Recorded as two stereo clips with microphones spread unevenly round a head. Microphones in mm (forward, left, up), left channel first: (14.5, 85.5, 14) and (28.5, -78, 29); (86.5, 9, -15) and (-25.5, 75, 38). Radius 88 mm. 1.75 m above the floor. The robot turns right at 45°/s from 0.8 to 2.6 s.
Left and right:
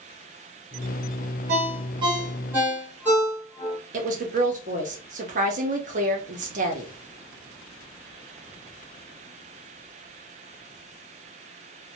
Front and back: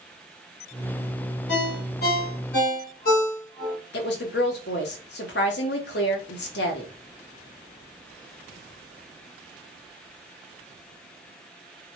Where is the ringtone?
60° right, 1.4 m; by 3.8 s 10° right, 1.4 m.